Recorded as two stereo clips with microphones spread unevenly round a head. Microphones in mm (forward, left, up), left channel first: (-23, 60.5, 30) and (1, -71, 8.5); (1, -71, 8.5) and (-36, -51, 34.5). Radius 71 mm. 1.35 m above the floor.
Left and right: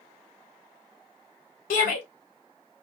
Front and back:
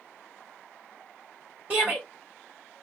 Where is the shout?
70° left, 1.3 m.